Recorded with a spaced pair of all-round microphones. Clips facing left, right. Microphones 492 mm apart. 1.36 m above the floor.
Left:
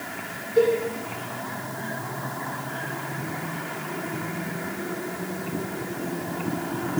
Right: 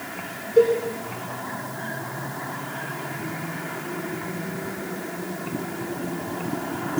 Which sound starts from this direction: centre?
A cowbell, at 0.6 s.